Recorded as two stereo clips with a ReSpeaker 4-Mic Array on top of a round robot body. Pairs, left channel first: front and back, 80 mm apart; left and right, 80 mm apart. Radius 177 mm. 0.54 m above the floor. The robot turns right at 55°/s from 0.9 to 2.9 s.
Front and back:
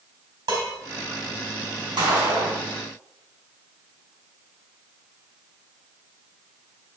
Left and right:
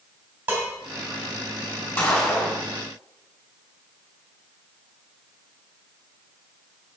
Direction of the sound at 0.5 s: 155° right.